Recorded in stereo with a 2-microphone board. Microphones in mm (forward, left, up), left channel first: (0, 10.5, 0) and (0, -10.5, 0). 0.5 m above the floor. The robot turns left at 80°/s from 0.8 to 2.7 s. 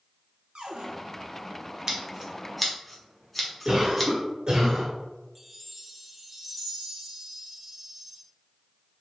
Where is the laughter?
No laughter in this recording.